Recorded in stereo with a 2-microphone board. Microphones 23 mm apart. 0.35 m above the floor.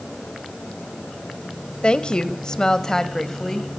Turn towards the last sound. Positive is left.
turn(degrees=15)  # may be behind; listen again after turning